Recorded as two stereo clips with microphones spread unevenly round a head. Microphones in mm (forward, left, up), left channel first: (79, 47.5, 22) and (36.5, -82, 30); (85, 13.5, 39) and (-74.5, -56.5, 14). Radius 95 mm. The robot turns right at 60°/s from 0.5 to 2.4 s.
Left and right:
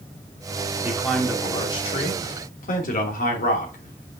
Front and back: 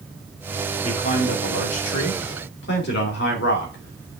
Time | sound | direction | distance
0.8 | a man speaking | 35° right | 2.5 m